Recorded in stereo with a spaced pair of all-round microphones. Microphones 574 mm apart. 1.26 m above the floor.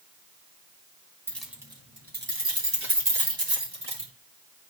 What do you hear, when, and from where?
1.3 s keys jangling: 5° left (ahead or behind), 1.9 m; by 4.1 s 45° right (ahead or behind), 3 m